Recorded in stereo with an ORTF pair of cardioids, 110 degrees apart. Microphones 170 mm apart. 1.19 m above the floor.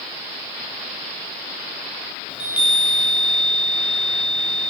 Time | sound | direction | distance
2.3 | a chime | 5° right | 0.7 m